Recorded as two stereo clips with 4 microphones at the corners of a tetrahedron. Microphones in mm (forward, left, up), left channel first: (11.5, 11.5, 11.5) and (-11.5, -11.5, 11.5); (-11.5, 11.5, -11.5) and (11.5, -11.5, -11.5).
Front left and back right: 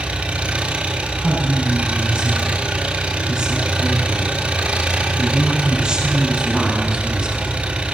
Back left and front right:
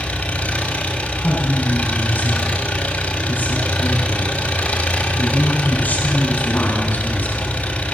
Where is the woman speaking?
160° left, 8.5 m.